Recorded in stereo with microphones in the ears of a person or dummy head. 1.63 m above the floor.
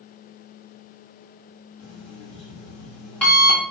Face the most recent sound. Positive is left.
turn(degrees=15)  # may be behind; listen again after turning